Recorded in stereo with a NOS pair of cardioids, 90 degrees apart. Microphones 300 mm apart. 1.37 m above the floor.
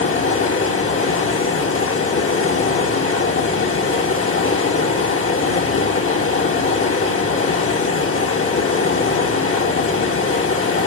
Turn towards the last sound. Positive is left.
turn(degrees=45)